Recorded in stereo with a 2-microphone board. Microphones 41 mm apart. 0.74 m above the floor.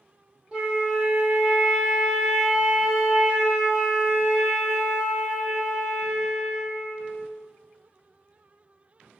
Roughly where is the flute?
Centre.